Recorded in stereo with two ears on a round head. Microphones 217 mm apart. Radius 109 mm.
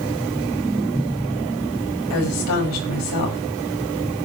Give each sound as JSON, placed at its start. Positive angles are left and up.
{"t": 2.1, "sound": "a woman speaking", "side_deg": 80, "distance_m": 5.5}